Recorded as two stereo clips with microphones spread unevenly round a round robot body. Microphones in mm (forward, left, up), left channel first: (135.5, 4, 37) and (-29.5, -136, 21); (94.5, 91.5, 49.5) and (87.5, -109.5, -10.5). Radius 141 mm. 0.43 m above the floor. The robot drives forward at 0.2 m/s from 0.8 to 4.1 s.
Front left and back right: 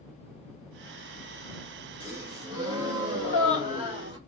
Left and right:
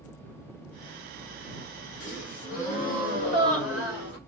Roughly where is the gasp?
Behind left.